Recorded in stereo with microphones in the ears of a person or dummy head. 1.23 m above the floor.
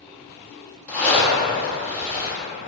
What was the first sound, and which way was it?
A zipper, 10° left (ahead or behind).